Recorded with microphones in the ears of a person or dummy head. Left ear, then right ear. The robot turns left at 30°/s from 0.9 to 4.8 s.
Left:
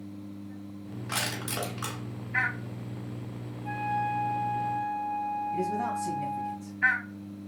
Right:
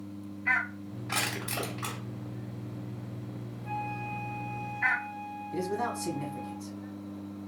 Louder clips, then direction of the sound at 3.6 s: Left 6 dB; straight ahead.